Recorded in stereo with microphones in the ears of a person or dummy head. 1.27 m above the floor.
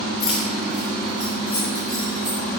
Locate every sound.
0.2 s keys jangling: centre (ahead or behind), 2.5 m; by 2.6 s 20° right (ahead or behind), 6 m